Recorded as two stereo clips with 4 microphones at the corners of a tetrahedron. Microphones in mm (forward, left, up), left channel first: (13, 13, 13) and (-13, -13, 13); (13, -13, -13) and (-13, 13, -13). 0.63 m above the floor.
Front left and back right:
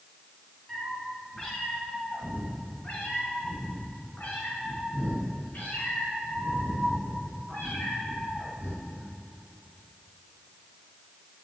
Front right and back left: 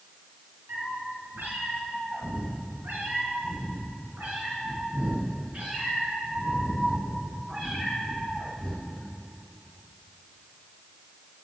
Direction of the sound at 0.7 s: 120° left.